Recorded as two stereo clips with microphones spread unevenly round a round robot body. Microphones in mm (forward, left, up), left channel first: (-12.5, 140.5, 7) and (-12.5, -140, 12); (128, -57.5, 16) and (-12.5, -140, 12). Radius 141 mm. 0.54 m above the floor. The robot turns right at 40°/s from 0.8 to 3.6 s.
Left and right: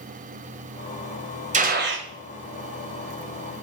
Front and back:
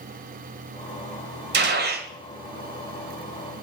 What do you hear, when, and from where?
1.5 s a gunshot: 155° right, 2 m; by 2.1 s 135° right, 2 m